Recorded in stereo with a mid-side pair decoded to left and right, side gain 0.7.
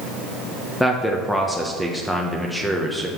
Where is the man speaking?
5° left, 0.9 m.